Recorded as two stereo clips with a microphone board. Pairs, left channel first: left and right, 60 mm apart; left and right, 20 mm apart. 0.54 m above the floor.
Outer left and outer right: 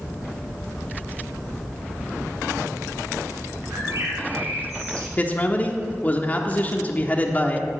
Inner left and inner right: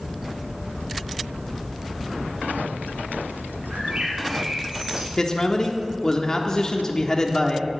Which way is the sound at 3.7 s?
60° right (ahead or behind).